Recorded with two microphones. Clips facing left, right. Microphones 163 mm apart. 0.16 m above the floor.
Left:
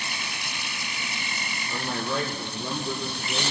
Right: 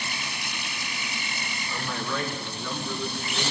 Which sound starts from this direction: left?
A man speaking, at 1.7 s.